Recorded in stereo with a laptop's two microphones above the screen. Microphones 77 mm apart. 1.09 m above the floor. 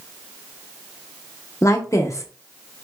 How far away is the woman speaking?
About 0.5 m.